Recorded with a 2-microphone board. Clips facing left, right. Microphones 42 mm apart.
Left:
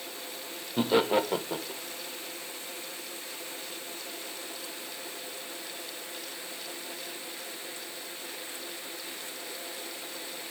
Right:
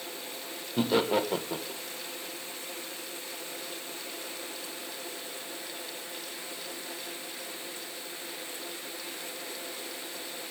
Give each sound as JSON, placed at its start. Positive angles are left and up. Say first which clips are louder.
{"t": 0.8, "sound": "laughter", "louder": "left 1 dB", "side_deg": 10, "distance_m": 1.5}